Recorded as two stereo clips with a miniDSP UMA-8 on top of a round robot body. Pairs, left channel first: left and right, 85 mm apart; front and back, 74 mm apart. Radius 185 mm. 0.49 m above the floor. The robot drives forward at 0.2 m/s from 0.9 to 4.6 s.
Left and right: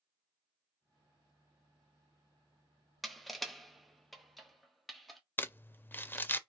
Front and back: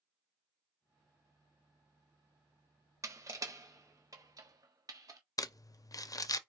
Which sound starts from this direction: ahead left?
Crumpling, at 5.4 s.